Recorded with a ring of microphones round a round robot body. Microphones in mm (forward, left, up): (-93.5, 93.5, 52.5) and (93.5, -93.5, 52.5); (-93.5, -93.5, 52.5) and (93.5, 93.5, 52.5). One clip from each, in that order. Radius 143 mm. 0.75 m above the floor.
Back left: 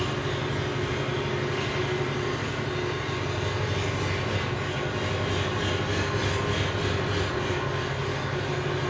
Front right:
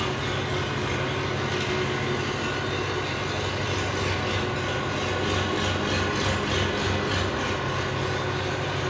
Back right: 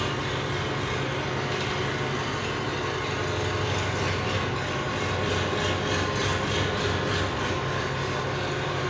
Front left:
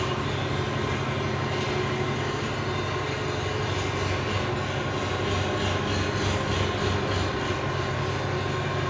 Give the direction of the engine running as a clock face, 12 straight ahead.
2 o'clock.